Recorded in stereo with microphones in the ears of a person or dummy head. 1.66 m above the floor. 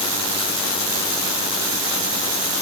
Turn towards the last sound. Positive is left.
No sound to turn to.